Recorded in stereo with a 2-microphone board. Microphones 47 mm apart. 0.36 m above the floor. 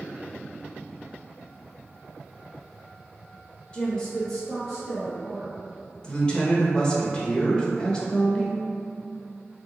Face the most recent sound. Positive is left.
turn(degrees=20)  # may be behind; listen again after turning